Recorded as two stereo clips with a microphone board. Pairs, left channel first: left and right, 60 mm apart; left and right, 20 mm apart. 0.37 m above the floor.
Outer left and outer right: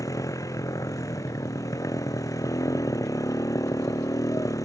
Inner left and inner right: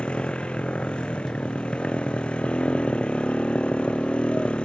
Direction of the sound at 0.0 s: 75° left (ahead or behind).